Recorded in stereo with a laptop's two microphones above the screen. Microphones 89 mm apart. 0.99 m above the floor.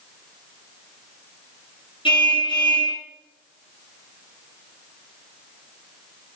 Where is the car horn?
70° left (ahead or behind), 7.5 m.